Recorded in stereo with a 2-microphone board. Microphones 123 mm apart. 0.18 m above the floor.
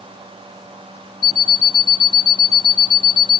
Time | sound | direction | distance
1.2 | an alarm clock | 40° left (ahead or behind) | 0.7 m